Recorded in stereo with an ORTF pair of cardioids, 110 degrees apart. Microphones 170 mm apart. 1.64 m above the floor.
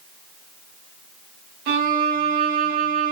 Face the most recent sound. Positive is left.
turn(degrees=-65)